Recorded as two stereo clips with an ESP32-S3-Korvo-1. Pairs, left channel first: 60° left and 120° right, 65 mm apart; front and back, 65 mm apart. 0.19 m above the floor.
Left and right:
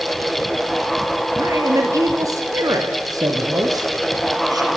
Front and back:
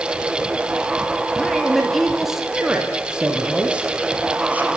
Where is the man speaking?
85° right, 5 m; by 4.7 s 115° right, 7 m.